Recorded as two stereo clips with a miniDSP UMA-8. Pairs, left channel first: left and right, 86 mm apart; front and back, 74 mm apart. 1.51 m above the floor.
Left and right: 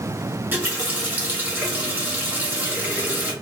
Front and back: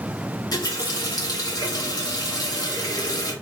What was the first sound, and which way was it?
A running tap, 25° right.